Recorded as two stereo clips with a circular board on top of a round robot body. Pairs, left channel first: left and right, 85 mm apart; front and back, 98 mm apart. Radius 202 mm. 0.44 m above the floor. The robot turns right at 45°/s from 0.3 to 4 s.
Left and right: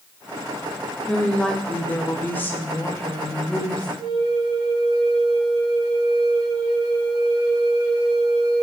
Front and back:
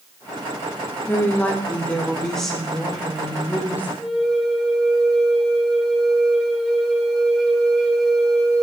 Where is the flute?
90° right, 1.3 m.